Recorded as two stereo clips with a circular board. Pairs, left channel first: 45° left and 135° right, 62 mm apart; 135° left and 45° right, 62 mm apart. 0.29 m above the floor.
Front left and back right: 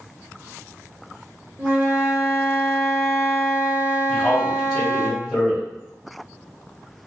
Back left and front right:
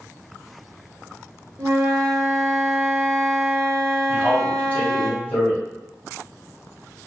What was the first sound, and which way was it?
A flute, 80° right.